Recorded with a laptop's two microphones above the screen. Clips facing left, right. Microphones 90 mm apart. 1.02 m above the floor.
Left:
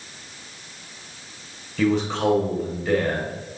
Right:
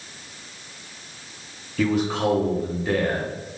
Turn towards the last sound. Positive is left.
turn(degrees=-5)  # may be behind; listen again after turning